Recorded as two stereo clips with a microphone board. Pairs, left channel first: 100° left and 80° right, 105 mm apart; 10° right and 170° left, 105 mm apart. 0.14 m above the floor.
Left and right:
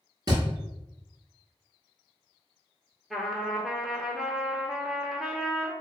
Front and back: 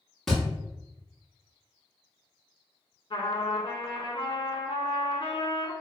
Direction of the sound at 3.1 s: 10° left.